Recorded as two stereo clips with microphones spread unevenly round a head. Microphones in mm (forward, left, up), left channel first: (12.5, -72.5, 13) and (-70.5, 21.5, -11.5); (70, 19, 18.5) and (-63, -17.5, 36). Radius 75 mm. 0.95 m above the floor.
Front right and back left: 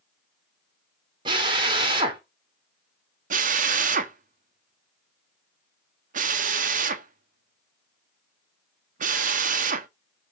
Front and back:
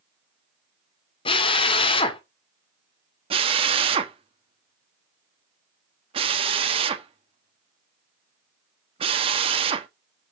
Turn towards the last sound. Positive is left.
turn(degrees=140)